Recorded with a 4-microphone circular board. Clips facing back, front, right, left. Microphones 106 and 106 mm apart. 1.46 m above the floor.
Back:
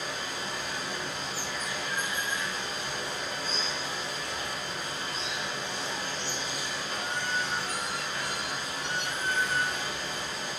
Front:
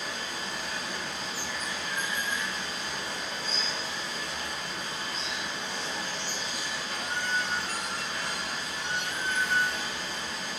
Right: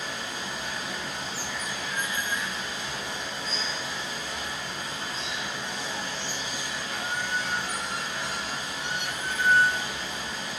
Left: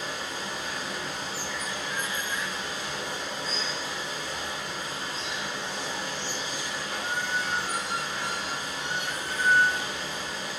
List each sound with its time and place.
0.0 s running water: 140° left, 1.8 m